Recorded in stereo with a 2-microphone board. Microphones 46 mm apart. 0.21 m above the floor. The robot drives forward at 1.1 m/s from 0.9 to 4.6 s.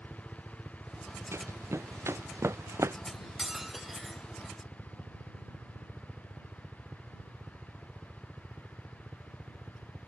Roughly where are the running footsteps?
Right.